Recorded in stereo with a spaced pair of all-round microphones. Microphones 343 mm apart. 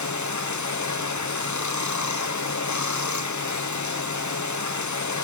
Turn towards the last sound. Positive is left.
turn(degrees=60)  # may be behind; listen again after turning